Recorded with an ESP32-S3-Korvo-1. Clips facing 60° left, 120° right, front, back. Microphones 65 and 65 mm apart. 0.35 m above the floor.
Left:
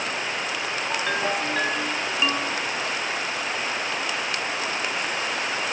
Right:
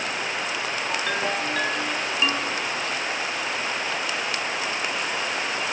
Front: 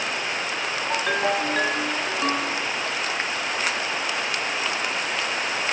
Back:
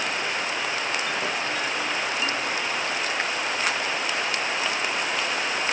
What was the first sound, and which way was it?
A ringtone, 20° right.